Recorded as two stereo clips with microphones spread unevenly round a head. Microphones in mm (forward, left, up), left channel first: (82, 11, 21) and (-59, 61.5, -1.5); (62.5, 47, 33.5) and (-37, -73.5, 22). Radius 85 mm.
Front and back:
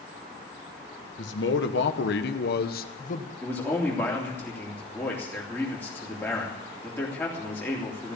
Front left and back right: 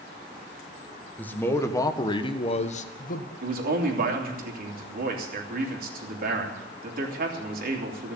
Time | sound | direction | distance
1.2 | a man speaking | 30° right | 1.6 m
3.4 | a man speaking | 100° right | 3 m